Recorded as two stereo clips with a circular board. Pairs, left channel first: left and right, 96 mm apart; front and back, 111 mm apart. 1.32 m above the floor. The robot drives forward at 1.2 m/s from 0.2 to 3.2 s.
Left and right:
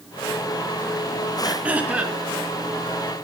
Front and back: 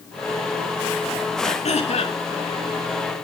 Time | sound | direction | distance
1.4 | throat clearing | 10° right | 4 m